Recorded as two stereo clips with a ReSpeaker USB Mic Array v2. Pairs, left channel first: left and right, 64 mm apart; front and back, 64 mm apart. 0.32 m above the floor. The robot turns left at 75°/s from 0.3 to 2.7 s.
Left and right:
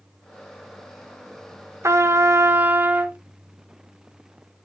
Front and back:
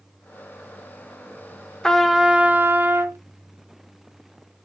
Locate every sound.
1.8 s a trumpet: 75° right, 0.9 m; by 3.2 s 140° right, 0.9 m